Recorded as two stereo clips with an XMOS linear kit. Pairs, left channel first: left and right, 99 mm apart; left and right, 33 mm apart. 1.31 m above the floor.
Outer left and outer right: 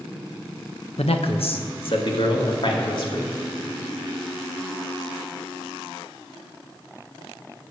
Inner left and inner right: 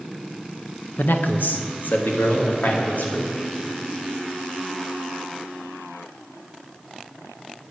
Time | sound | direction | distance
1.0 | a man speaking | 85° left | 1.1 m